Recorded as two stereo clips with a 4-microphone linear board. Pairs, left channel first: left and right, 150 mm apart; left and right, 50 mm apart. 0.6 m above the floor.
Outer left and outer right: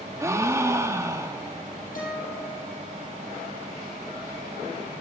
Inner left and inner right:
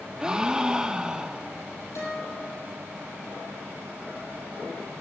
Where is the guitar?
65° left (ahead or behind), 4.5 m.